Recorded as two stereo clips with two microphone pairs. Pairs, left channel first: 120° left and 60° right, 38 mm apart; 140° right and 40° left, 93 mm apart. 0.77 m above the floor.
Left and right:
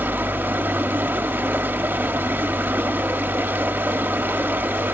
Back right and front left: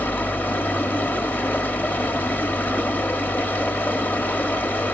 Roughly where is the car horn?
No car horn in this recording.